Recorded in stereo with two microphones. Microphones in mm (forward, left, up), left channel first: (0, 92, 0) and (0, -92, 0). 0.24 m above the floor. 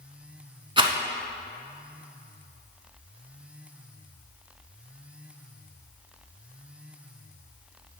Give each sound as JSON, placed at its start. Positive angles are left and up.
{"t": 0.8, "sound": "a rattle", "side_deg": -30, "distance_m": 0.7}